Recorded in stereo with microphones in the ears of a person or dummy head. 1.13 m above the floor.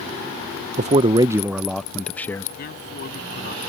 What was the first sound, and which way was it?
A man speaking, 40° right (ahead or behind).